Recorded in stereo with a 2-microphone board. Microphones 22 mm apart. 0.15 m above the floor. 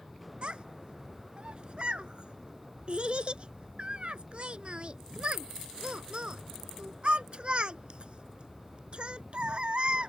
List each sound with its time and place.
0.4 s a child speaking: 50° right (ahead or behind)